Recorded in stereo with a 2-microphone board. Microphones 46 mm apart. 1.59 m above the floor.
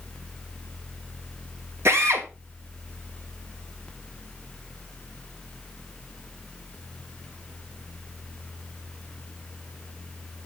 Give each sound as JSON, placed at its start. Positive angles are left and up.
{"t": 1.9, "sound": "a drill", "side_deg": -70, "distance_m": 2.5}